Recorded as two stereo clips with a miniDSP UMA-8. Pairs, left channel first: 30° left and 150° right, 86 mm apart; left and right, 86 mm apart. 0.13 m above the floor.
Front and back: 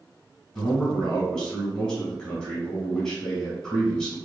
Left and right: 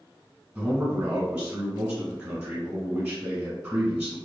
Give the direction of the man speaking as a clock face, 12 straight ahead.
1 o'clock.